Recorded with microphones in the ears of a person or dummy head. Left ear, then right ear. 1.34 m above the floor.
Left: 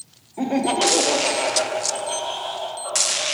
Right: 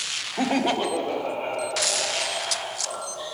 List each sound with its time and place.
0.4 s laughter: 45° right (ahead or behind), 0.6 m; by 3.2 s 50° left (ahead or behind), 3 m